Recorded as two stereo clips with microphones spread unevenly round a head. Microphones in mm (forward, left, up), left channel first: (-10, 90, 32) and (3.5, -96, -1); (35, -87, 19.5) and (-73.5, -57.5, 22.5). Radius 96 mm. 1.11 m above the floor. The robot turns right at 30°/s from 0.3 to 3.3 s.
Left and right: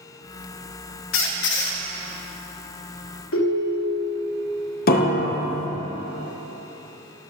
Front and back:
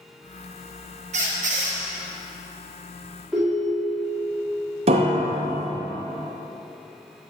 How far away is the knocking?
No knocking in this recording.